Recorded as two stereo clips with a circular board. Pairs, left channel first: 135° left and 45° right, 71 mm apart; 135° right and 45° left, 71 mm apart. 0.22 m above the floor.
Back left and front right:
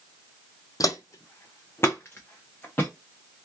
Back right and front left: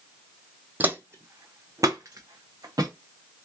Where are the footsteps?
110° left, 0.5 m; by 2.9 s 75° left, 1.4 m.